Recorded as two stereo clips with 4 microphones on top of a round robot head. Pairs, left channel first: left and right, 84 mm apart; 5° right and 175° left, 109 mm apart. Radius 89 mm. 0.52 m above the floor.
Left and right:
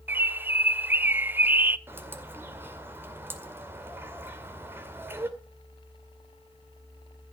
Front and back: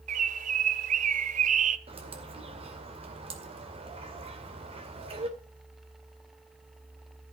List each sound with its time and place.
0.1 s a bird: 160° right, 0.6 m
1.9 s a bird: 155° right, 2 m